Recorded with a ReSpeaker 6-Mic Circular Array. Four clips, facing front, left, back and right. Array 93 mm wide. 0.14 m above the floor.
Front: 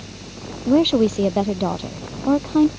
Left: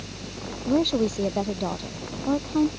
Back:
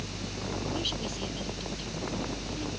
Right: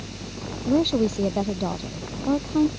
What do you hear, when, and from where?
0.7 s a woman speaking: straight ahead